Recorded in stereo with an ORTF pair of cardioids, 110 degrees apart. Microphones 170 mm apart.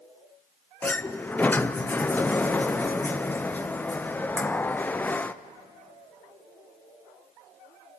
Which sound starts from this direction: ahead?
A sliding door, at 0.8 s.